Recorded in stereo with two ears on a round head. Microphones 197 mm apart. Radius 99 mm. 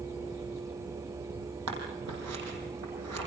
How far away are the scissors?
About 6.5 m.